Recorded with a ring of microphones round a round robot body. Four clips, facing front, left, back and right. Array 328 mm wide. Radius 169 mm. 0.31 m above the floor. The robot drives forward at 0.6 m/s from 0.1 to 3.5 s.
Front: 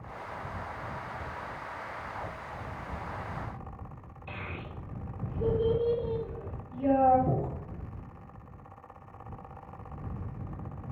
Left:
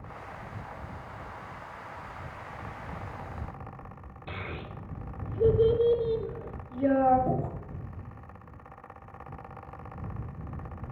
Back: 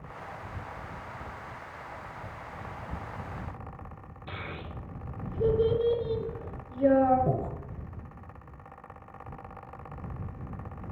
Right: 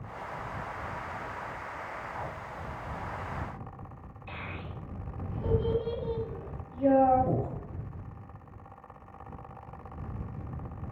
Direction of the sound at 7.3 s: 160° left.